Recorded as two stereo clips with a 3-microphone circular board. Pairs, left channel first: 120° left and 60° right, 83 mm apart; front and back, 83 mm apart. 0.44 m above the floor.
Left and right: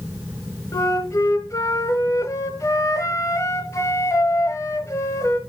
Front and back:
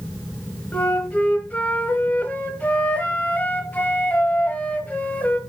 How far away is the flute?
About 1.0 m.